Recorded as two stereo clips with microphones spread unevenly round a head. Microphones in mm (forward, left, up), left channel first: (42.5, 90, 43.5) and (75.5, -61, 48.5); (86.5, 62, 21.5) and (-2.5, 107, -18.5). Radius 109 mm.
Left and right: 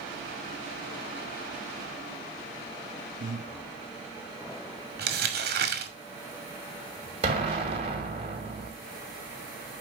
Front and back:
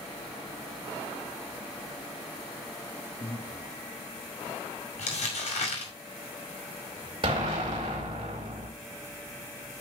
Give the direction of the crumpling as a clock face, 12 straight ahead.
2 o'clock.